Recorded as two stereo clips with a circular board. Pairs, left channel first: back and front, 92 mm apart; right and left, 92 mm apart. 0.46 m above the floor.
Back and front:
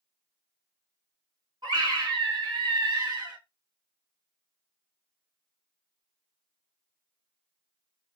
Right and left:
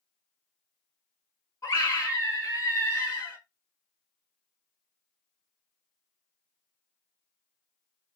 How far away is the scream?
About 2.5 m.